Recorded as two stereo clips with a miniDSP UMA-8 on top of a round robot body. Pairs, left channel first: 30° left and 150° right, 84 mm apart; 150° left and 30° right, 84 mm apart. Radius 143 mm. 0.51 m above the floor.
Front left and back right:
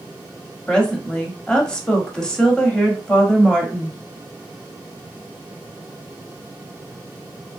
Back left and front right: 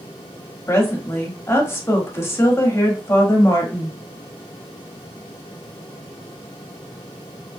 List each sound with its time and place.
0.7 s a woman speaking: 105° left, 1.3 m